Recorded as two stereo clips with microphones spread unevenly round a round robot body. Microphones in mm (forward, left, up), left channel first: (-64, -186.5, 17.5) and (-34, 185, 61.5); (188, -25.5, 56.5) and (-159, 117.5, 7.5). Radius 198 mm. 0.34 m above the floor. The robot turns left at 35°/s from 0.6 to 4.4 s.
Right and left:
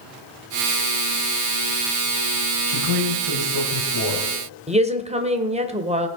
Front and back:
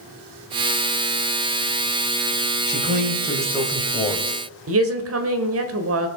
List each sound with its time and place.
2.7 s a man speaking: 105° left, 2 m; by 4.3 s 50° left, 2 m
4.7 s a woman speaking: 160° left, 1.5 m